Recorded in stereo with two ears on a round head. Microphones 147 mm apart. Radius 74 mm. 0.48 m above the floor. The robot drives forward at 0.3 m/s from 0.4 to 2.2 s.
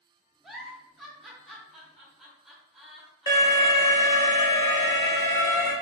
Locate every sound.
0.4 s a giggle: centre (ahead or behind), 0.7 m
3.3 s an alarm: 20° left (ahead or behind), 1.0 m